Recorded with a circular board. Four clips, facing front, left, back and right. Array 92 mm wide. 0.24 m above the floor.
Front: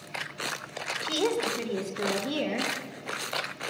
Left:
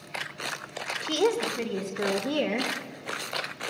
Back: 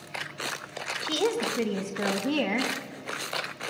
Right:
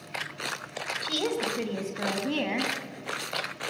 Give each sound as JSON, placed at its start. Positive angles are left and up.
{"t": 1.0, "sound": "a woman speaking", "azimuth_deg": 80, "distance_m": 1.0}